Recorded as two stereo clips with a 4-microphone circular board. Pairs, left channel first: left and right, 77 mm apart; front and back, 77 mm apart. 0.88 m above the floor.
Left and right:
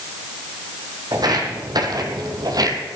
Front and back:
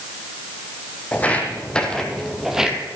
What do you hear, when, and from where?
1.1 s footsteps: 65° right, 2 m; by 2.8 s 105° right, 1.4 m